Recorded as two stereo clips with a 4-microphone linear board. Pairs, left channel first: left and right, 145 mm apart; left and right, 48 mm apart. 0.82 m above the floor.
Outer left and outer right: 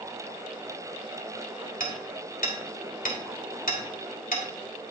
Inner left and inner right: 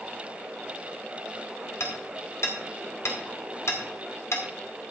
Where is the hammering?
75° left (ahead or behind), 2 m.